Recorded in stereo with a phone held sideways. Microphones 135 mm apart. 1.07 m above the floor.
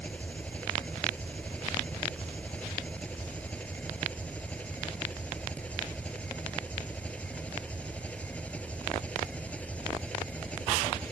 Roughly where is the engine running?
Centre.